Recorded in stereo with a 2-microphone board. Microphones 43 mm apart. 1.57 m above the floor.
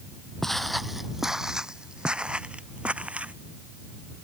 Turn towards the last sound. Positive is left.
turn(degrees=-30)  # may be behind; listen again after turning